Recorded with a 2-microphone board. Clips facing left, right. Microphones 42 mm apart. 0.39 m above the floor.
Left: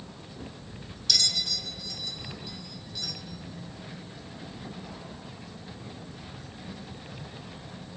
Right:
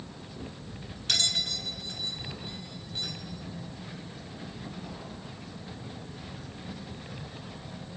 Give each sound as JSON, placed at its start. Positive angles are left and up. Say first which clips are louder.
{"t": 1.1, "sound": "a bell", "louder": "right 1 dB", "side_deg": -35, "distance_m": 2.5}